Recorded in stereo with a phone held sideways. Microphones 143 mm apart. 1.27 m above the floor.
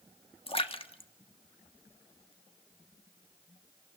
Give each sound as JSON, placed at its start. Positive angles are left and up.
{"t": 0.5, "sound": "a splash", "side_deg": 40, "distance_m": 1.6}